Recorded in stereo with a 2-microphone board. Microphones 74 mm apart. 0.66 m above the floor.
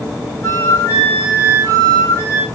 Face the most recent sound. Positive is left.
turn(degrees=35)  # may be behind; listen again after turning